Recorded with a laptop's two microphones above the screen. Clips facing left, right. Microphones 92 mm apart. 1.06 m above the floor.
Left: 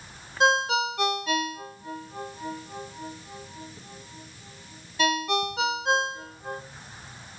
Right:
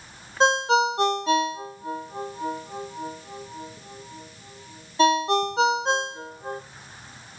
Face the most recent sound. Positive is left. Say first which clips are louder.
# right 3 dB
turn(degrees=-30)  # may be behind; listen again after turning